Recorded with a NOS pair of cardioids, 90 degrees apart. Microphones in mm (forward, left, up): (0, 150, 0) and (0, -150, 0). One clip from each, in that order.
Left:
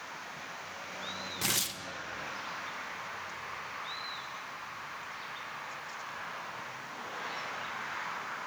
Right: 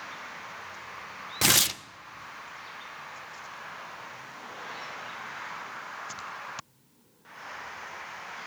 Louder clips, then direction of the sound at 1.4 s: Right 10 dB; 45° right.